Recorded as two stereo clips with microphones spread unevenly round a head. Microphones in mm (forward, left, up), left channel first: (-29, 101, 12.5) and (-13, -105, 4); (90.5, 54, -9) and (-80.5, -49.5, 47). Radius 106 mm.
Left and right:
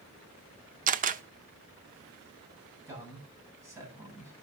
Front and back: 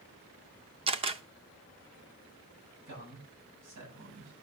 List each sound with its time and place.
0.9 s a camera shutter: 125° right, 0.7 m
2.9 s a man speaking: 160° right, 8.5 m